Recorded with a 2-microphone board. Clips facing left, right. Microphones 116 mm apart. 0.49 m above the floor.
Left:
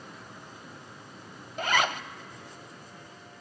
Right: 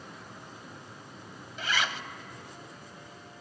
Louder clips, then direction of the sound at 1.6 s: Left 5 dB; 50° left (ahead or behind).